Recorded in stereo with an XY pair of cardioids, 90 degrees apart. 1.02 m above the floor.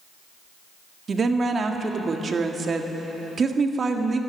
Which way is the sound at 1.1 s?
45° right.